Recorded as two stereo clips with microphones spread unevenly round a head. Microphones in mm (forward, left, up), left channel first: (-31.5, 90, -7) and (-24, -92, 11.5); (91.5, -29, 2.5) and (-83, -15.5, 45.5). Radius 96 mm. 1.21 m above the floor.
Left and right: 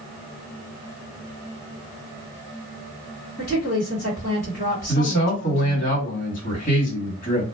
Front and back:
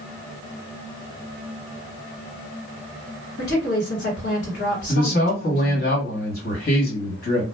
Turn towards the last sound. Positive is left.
turn(degrees=40)